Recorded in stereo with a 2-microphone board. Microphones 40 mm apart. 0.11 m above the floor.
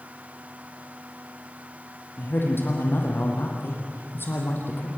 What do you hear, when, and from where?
2.2 s a man speaking: 65° left (ahead or behind), 4.5 m